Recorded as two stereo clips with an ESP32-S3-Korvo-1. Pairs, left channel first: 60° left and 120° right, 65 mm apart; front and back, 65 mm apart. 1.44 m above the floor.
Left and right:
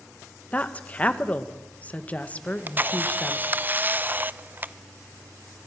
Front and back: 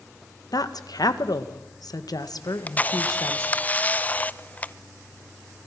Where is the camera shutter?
60° right, 0.7 m.